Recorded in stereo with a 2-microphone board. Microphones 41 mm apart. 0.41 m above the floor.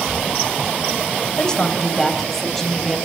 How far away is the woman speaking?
About 2.0 m.